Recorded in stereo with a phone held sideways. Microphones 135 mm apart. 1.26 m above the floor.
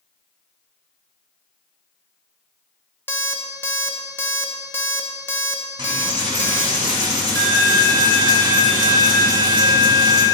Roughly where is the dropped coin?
Right.